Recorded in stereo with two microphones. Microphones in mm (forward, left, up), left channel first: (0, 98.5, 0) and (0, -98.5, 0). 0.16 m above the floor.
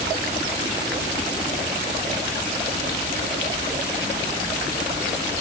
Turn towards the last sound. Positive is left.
No sound to turn to.